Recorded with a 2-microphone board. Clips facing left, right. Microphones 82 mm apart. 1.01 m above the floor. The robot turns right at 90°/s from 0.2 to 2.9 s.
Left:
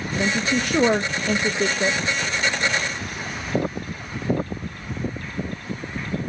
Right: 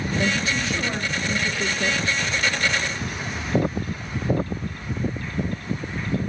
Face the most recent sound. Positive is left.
turn(degrees=-100)